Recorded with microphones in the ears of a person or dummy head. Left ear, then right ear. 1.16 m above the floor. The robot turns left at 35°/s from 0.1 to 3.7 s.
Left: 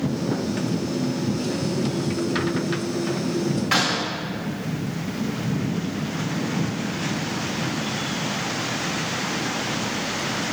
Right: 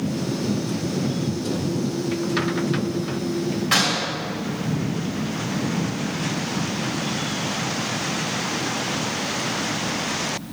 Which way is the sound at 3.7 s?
15° left (ahead or behind).